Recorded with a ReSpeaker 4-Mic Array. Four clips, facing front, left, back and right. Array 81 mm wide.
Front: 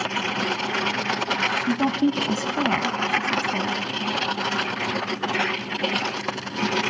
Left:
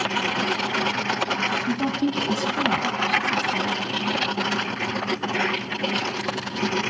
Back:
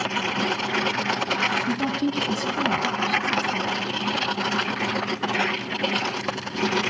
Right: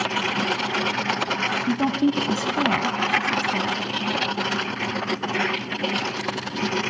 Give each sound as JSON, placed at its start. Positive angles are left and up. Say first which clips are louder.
{"t": 1.7, "sound": "a woman speaking", "louder": "right 5 dB, front 3 dB", "azimuth_deg": -35, "distance_m": 1.0}